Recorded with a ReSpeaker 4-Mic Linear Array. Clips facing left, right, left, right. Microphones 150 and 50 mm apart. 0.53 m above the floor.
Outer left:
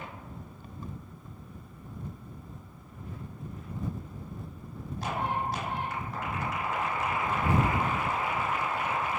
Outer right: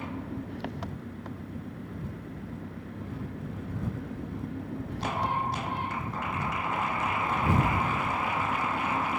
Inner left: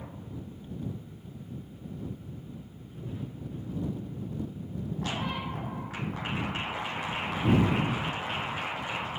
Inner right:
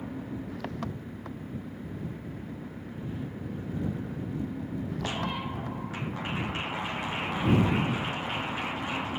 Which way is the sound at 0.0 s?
85° right.